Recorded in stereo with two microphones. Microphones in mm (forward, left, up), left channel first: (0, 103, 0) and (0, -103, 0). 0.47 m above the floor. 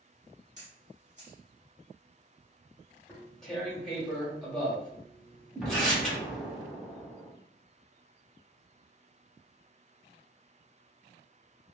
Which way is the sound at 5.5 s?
5° right (ahead or behind).